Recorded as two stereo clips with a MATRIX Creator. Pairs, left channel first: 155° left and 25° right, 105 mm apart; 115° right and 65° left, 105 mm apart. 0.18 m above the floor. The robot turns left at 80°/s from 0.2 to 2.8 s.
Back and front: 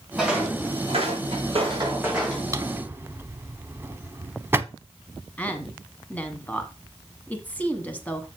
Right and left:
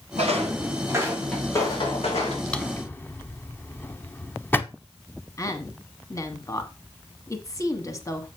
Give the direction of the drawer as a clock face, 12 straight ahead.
1 o'clock.